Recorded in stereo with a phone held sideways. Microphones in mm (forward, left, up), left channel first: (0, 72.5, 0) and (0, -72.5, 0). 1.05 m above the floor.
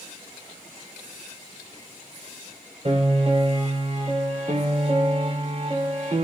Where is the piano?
50° right (ahead or behind), 4 m.